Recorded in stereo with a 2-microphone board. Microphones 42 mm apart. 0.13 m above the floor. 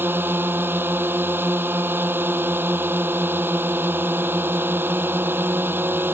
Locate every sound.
0.0 s a drone: 55° right (ahead or behind)